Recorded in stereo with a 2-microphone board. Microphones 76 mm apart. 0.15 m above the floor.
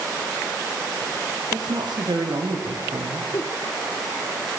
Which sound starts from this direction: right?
A woman speaking, at 1.5 s.